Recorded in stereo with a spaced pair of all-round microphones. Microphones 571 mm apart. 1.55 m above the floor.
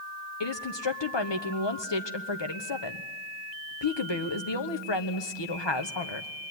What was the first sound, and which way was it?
A woman speaking, 50° left (ahead or behind).